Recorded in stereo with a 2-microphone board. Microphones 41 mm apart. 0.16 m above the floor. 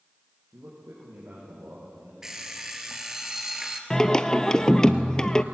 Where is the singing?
15° left (ahead or behind), 0.7 m.